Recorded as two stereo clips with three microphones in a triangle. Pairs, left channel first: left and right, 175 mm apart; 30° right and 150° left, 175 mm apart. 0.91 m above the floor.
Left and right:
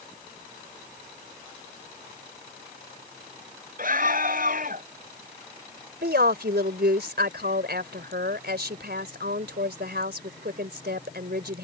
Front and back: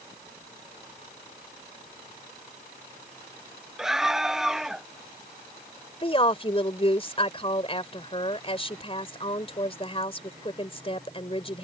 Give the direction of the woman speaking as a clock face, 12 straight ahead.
3 o'clock.